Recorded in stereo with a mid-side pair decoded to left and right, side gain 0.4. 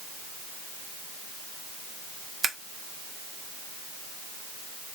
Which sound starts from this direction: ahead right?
Scissors, at 2.4 s.